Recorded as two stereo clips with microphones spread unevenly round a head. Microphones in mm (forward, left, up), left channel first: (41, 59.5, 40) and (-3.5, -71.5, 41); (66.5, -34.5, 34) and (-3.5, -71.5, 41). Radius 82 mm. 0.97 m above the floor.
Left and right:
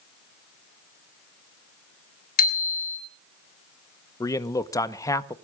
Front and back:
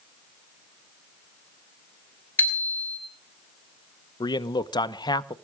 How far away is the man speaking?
About 1.2 m.